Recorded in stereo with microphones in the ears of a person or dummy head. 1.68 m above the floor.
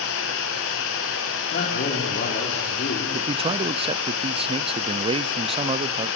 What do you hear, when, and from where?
0.0 s running water: 70° left (ahead or behind), 5 m
1.5 s a man speaking: 45° left (ahead or behind), 4 m
3.1 s a man speaking: 25° right (ahead or behind), 0.5 m